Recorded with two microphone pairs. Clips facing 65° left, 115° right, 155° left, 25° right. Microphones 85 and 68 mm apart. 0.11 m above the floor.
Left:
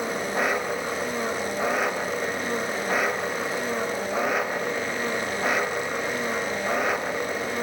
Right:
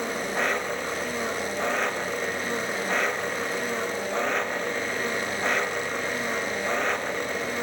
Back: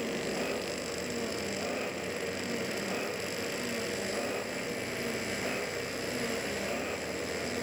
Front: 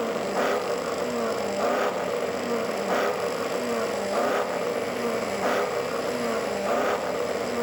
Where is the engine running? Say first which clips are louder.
Left 2 dB, front 8 dB; 20° right.